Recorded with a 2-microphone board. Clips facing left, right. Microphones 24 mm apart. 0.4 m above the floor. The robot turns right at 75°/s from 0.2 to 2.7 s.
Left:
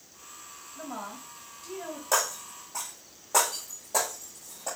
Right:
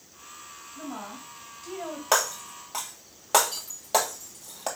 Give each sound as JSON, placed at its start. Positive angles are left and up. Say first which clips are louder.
{"t": 0.8, "sound": "a woman speaking", "louder": "even", "azimuth_deg": 150, "distance_m": 2.5}
{"t": 2.1, "sound": "breaking glass", "louder": "right 3 dB", "side_deg": -55, "distance_m": 1.7}